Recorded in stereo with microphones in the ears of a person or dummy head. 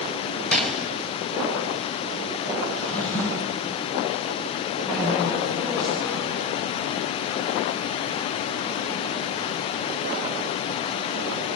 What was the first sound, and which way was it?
A gunshot, 5° left (ahead or behind).